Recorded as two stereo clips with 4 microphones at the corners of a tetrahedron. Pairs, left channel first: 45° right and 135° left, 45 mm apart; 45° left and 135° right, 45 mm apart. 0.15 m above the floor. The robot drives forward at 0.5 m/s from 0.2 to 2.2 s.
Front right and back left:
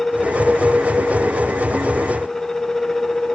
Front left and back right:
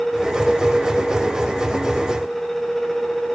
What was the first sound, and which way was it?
Only background noise.